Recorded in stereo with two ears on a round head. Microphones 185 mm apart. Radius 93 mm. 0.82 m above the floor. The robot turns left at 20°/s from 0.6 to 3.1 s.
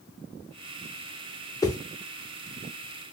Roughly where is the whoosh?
Centre.